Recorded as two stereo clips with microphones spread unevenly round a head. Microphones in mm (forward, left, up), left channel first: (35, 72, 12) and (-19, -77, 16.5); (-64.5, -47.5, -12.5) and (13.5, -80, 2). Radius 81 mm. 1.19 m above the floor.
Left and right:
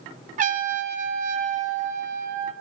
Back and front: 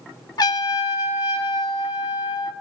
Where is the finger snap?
No finger snap in this recording.